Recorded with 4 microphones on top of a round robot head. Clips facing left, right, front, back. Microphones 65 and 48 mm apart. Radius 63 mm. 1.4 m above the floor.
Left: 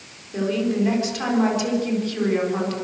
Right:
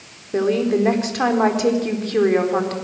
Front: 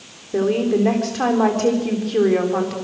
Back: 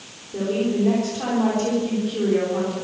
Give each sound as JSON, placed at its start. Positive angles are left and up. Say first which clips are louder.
{"t": 0.3, "sound": "a woman speaking", "louder": "right 4 dB, front 4 dB", "azimuth_deg": -45, "distance_m": 4.0}